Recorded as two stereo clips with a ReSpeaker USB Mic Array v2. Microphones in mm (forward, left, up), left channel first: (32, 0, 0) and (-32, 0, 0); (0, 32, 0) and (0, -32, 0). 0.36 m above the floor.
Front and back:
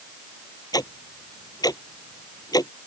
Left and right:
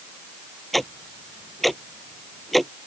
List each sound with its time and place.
0.7 s ticking: straight ahead